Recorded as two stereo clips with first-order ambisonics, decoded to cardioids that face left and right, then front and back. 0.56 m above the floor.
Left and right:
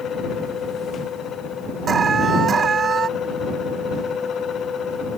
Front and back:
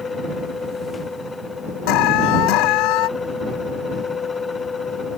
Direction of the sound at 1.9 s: 20° right.